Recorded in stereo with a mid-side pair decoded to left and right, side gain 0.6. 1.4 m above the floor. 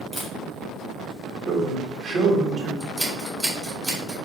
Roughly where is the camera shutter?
Ahead.